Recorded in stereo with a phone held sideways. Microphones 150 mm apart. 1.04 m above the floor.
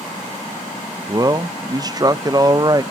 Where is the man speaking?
30° right (ahead or behind), 0.5 m.